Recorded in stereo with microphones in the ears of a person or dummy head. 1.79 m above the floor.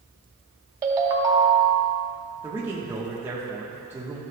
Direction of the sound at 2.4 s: 15° right (ahead or behind).